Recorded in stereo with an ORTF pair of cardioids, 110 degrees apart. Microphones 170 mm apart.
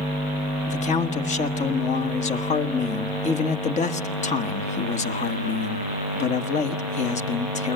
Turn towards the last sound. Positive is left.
turn(degrees=45)